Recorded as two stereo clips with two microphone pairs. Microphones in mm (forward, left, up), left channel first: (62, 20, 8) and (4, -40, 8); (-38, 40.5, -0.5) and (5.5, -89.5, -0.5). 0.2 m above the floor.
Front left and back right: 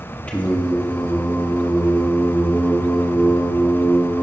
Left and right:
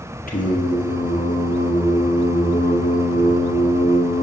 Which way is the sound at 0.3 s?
120° left.